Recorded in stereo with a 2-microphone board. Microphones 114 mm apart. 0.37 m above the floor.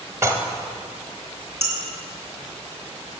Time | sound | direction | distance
0.2 | dishes clattering | 25° right (ahead or behind) | 1.1 m
1.6 | dishes clattering | 25° right (ahead or behind) | 3 m